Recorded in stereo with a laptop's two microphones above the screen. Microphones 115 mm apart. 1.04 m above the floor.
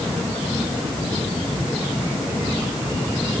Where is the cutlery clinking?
No cutlery clinking in this recording.